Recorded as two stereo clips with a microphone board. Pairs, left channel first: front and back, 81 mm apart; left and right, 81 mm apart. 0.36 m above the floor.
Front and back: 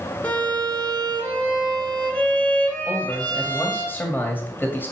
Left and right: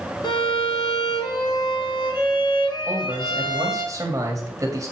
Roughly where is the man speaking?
Ahead right.